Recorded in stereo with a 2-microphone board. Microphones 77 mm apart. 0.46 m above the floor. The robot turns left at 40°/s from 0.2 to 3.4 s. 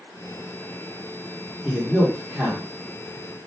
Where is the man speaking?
10° right (ahead or behind), 0.9 m; by 2.7 s 20° right (ahead or behind), 0.9 m.